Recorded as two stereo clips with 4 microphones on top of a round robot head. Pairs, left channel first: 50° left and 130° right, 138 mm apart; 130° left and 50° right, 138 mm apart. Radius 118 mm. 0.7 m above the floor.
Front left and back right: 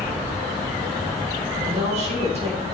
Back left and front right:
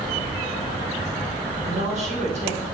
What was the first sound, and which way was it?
A woman speaking, 85° right.